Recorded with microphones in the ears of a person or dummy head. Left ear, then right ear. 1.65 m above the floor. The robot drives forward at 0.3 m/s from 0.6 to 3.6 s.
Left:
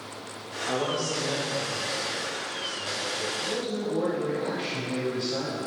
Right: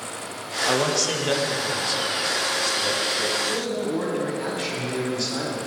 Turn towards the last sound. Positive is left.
turn(degrees=-85)